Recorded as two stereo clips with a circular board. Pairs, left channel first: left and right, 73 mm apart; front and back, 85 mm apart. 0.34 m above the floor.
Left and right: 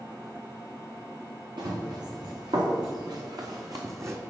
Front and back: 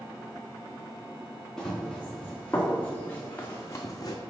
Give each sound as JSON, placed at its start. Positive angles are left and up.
{"t": 1.6, "sound": "running footsteps", "azimuth_deg": -85, "distance_m": 2.5}